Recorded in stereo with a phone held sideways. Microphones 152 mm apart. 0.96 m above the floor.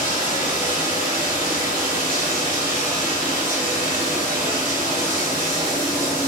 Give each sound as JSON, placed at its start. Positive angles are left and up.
{"t": 0.0, "sound": "running water", "side_deg": -70, "distance_m": 1.3}